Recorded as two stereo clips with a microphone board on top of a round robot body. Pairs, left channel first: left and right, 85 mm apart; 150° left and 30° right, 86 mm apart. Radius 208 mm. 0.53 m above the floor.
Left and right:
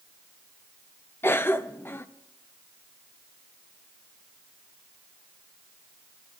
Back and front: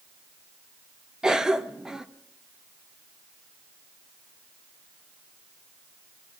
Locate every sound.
1.2 s a cough: 45° left, 0.7 m